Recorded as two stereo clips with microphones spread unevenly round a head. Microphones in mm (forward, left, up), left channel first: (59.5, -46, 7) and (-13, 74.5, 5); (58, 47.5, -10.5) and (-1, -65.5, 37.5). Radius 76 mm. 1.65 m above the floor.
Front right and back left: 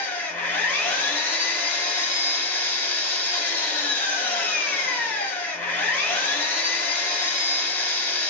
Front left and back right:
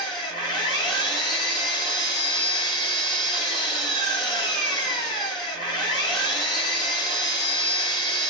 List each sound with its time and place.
0.0 s an engine running: straight ahead, 1.2 m